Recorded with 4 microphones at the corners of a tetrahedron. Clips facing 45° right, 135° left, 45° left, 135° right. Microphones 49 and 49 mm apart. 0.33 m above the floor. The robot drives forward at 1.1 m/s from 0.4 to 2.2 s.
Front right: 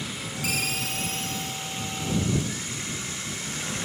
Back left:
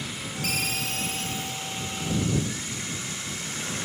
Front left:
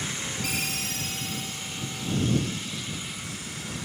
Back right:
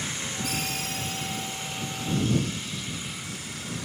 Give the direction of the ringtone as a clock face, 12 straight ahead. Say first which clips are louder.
Even, even; 11 o'clock.